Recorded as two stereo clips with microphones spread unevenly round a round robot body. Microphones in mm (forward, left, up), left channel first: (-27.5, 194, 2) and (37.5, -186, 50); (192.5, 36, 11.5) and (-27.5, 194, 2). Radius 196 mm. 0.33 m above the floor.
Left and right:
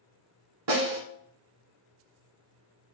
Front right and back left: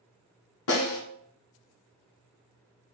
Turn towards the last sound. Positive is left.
turn(degrees=-40)